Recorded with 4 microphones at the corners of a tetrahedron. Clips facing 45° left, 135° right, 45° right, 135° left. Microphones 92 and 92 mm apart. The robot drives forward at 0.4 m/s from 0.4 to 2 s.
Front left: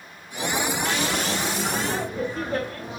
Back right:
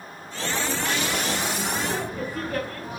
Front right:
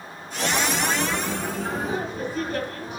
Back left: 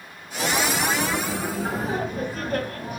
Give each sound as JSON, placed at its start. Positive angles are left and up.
{"t": 1.6, "sound": "laughter", "azimuth_deg": 105, "distance_m": 2.5}